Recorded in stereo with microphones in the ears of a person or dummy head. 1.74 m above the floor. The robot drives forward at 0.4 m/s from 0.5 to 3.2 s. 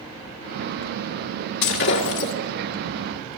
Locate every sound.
1.6 s breaking glass: 60° left (ahead or behind), 2 m